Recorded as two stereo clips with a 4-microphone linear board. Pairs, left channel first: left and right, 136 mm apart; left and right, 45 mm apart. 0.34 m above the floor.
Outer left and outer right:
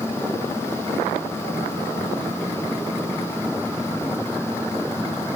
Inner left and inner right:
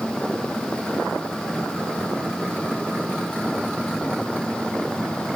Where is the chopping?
I don't hear chopping.